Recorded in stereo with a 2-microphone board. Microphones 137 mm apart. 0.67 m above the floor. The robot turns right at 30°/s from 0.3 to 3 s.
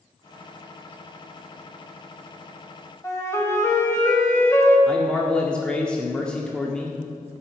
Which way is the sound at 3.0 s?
20° left (ahead or behind).